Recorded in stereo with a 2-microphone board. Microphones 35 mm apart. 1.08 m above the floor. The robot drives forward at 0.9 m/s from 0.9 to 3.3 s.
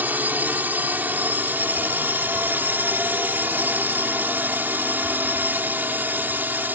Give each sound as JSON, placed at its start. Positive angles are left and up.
{"t": 0.0, "sound": "a drone", "side_deg": -65}